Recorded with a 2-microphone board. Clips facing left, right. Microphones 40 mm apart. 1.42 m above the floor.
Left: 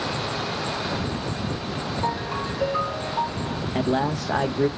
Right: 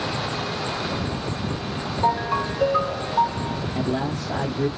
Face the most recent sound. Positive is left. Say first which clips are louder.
# left 4 dB
turn(degrees=70)  # may be behind; listen again after turning